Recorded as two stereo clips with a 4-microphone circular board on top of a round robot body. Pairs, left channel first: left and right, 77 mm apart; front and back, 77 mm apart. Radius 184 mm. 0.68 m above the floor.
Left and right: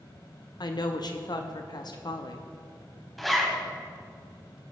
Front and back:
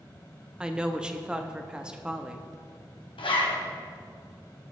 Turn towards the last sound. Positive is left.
turn(degrees=0)